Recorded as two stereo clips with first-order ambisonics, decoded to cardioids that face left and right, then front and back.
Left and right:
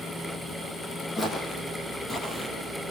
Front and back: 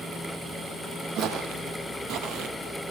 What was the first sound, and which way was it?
Footsteps, 155° left.